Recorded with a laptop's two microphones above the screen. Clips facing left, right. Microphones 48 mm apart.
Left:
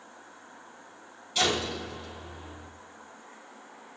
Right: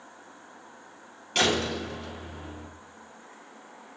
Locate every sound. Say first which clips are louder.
1.4 s a door slam: right 3 dB; 60° right (ahead or behind), 1.7 m